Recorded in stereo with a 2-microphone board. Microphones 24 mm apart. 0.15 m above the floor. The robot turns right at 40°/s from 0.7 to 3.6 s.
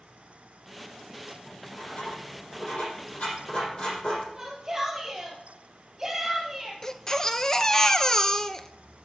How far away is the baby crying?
About 0.7 m.